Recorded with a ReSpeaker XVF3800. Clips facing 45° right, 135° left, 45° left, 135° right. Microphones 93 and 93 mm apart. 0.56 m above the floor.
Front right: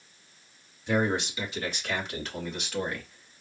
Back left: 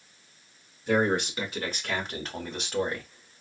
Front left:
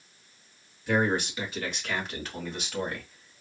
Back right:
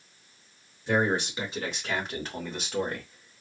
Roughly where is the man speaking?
Behind.